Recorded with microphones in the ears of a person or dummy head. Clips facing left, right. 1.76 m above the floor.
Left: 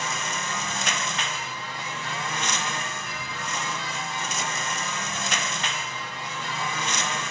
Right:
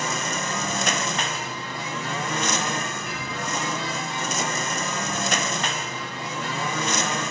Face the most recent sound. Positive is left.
turn(degrees=-40)  # may be behind; listen again after turning